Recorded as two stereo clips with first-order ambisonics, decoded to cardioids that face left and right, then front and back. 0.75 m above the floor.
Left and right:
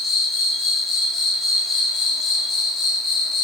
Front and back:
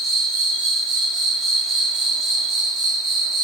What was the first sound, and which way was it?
An insect, 150° left.